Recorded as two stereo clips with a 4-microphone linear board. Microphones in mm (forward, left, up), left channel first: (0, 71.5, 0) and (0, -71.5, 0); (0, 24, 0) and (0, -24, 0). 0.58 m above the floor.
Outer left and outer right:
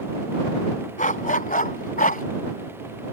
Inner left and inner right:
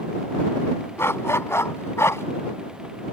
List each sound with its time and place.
1.0 s a dog barking: 70° left (ahead or behind); by 2.2 s 85° left